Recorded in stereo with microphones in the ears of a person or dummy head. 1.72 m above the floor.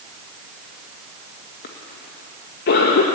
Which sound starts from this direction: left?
A cough, at 1.6 s.